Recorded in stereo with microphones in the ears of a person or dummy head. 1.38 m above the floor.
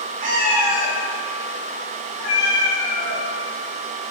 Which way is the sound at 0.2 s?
35° right (ahead or behind).